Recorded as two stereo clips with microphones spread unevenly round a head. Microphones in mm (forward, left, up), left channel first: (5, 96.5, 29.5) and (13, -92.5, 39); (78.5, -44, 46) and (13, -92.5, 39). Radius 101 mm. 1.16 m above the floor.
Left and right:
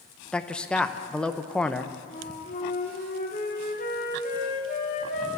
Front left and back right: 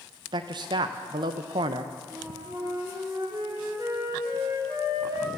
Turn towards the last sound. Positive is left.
turn(degrees=145)